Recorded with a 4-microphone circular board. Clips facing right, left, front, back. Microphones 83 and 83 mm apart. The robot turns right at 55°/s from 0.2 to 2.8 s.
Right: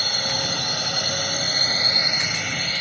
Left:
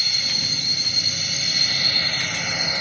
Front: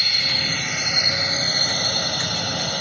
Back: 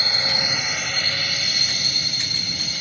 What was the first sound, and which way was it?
A drone, 120° right.